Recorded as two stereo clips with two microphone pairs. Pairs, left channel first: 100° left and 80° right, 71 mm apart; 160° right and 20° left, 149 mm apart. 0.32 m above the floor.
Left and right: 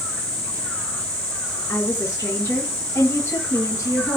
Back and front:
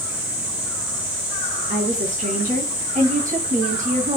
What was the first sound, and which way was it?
A woman speaking, 50° left.